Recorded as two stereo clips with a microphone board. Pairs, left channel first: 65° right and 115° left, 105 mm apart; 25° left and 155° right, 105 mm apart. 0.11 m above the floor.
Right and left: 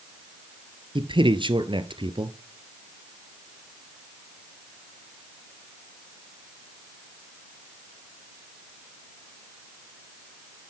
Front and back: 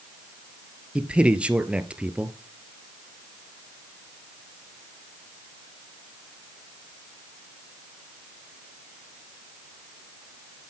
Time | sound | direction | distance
0.9 | a man speaking | 125° left | 1.8 m